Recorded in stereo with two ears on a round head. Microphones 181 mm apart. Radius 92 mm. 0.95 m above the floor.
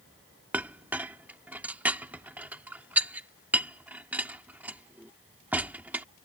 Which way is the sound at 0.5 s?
10° right (ahead or behind).